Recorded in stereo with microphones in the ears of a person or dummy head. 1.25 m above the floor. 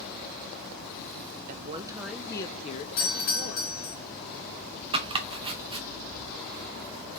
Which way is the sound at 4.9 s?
25° right (ahead or behind).